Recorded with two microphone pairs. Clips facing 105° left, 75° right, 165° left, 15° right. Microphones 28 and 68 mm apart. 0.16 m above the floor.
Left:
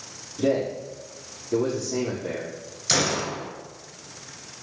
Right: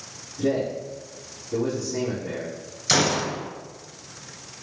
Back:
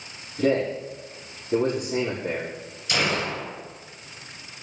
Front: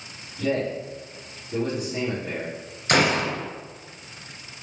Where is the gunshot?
5° left, 2.5 m.